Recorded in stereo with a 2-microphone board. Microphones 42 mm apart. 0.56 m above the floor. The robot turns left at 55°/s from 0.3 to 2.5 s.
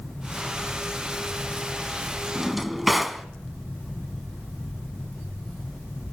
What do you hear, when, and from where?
2.4 s a drawer: 10° right (ahead or behind), 1.3 m; by 3.2 s 5° right (ahead or behind), 1.3 m